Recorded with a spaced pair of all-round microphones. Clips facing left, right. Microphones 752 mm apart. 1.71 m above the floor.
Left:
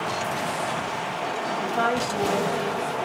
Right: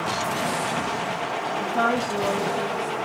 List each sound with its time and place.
1.6 s a woman speaking: 5° right (ahead or behind), 2.5 m